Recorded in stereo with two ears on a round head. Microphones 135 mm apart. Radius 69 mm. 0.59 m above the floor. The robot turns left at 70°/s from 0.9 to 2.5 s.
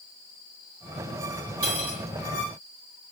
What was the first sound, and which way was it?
Cutlery clinking, 60° right (ahead or behind).